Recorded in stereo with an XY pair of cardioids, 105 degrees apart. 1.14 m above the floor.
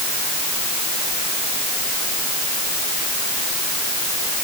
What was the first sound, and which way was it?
Only background noise.